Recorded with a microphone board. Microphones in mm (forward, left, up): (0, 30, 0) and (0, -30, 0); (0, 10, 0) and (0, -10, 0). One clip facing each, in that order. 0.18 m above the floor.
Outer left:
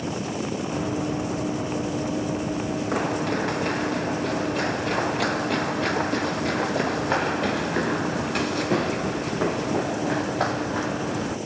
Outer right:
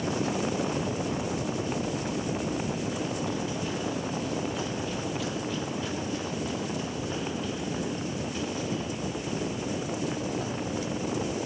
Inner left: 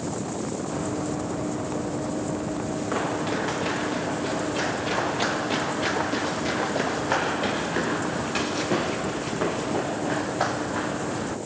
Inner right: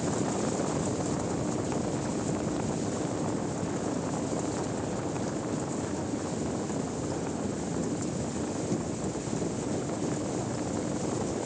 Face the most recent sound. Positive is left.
turn(degrees=70)  # may be behind; listen again after turning